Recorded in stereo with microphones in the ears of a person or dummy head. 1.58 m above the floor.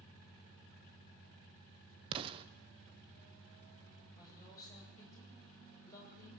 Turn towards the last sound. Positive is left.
turn(degrees=20)  # may be behind; listen again after turning